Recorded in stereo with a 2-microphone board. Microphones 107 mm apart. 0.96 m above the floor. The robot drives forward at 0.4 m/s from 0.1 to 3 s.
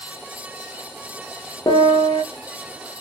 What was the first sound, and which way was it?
A piano, 45° left (ahead or behind).